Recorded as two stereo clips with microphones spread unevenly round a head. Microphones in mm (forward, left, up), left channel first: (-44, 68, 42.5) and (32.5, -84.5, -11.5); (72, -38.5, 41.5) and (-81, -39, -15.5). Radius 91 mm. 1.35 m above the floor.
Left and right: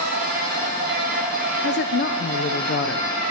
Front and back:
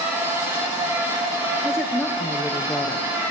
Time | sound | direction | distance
0.0 | a machine running | 100° right | 5.5 m
1.6 | a woman speaking | 80° left | 0.6 m